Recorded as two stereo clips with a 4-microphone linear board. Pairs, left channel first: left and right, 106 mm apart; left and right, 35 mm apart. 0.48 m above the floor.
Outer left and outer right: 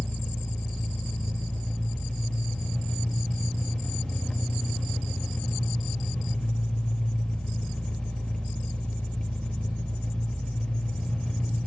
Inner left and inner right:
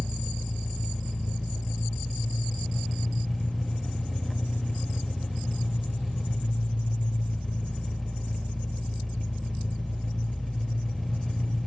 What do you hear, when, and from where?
0.0 s an engine running: 10° left (ahead or behind), 0.8 m